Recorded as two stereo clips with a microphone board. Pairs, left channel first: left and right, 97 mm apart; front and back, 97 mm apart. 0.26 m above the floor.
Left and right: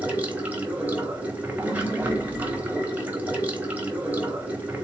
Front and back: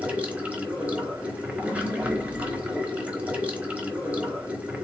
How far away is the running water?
About 1.2 m.